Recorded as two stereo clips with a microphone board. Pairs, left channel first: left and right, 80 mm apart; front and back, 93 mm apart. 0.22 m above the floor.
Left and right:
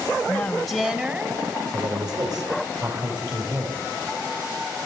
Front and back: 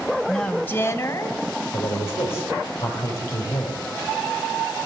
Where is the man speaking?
60° right, 6 m.